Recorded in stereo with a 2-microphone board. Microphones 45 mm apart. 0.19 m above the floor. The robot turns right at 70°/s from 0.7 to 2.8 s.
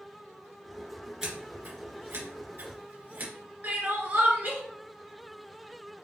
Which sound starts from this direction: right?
Crying, at 3.6 s.